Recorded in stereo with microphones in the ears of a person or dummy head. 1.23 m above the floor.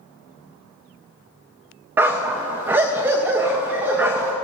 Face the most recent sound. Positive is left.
turn(degrees=-10)  # may be behind; listen again after turning